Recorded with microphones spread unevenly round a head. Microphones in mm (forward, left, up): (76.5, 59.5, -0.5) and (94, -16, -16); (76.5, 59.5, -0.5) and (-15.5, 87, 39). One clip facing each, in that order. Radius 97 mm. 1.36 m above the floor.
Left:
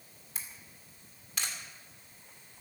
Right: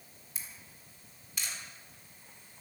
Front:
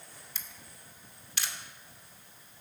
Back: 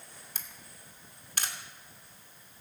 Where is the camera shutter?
130° left, 2 m.